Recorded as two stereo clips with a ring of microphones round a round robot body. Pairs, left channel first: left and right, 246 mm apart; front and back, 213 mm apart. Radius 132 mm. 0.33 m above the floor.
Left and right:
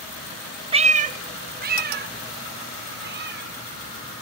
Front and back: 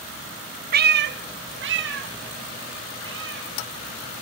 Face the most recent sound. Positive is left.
turn(degrees=-140)